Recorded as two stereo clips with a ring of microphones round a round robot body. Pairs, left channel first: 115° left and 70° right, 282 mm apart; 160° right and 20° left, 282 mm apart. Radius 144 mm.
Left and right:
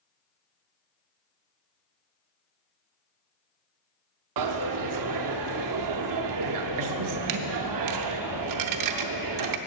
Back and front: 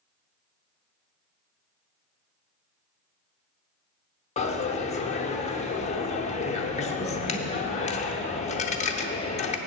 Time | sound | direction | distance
4.4 | a dropped coin | 90° right | 0.6 m